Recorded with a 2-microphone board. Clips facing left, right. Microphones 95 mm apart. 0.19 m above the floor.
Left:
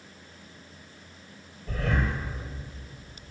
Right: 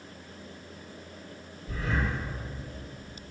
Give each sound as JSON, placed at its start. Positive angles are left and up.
{"t": 1.7, "sound": "breathing", "side_deg": 75, "distance_m": 4.0}